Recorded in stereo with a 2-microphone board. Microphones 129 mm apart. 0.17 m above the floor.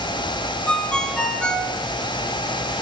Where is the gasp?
I don't hear a gasp.